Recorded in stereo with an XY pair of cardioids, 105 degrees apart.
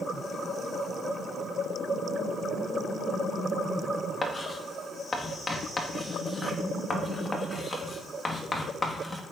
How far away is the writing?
About 2.5 m.